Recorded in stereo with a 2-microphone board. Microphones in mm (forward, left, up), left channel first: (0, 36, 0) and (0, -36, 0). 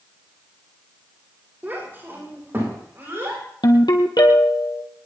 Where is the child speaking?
25° right (ahead or behind), 7.5 m; by 3.4 s 35° right (ahead or behind), 9.5 m.